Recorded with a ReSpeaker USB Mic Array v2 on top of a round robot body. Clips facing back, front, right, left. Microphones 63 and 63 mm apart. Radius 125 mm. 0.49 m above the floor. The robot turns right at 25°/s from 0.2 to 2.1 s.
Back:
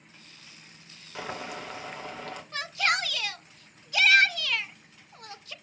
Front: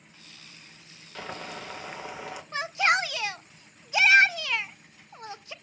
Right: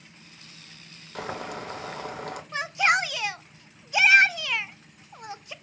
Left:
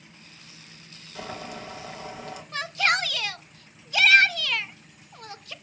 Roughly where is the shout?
Ahead right.